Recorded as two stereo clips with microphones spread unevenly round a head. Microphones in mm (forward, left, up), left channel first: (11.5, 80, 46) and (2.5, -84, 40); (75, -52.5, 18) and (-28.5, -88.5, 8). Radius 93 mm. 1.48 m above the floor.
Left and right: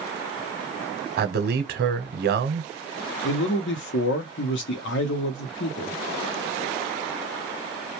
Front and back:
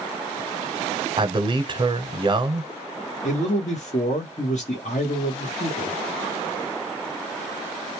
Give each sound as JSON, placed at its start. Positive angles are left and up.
{"t": 1.2, "sound": "a man speaking", "azimuth_deg": -115, "distance_m": 0.8}
{"t": 3.2, "sound": "a man speaking", "azimuth_deg": 75, "distance_m": 0.8}